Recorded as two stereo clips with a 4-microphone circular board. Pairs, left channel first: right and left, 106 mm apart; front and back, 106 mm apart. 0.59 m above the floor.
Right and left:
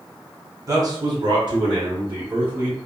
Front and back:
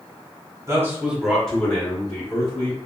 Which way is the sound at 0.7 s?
130° left.